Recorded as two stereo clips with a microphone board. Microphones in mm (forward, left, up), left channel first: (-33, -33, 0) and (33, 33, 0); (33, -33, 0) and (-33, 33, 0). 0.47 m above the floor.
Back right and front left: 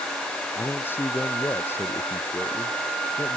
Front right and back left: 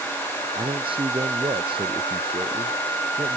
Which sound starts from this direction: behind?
A man speaking, at 0.6 s.